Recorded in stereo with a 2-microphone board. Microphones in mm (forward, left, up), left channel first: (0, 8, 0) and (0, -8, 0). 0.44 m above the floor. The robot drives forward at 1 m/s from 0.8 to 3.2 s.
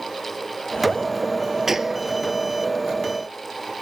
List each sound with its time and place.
1.7 s a gunshot: 25° right (ahead or behind); by 2.0 s 30° right (ahead or behind)